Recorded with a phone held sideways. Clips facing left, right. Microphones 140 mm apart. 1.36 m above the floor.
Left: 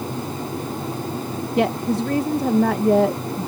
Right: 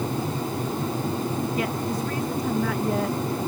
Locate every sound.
1.6 s a woman speaking: 75° left (ahead or behind)